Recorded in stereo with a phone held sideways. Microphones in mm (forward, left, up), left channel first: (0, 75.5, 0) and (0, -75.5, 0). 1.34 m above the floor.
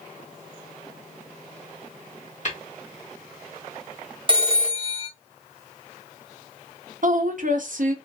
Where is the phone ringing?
35° right (ahead or behind), 0.6 m.